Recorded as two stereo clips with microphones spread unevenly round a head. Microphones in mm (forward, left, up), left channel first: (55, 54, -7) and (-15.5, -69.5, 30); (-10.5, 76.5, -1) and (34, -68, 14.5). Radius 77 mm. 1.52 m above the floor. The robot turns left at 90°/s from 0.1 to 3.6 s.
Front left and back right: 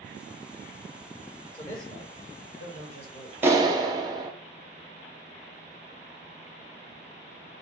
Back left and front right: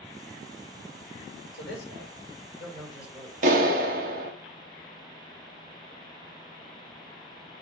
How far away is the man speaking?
About 4.5 m.